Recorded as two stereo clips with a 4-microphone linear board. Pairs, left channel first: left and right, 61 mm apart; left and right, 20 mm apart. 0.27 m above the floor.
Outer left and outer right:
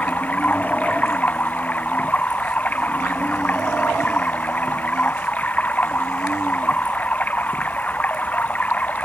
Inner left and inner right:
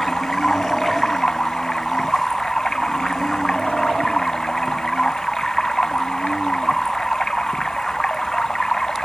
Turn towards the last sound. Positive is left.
turn(degrees=25)  # may be behind; listen again after turning